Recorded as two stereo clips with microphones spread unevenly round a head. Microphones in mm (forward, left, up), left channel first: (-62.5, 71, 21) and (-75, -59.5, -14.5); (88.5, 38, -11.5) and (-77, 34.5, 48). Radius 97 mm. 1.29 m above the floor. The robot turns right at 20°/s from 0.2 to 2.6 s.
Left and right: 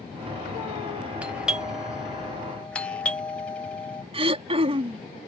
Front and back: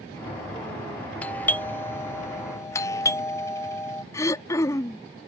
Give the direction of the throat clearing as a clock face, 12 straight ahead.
3 o'clock.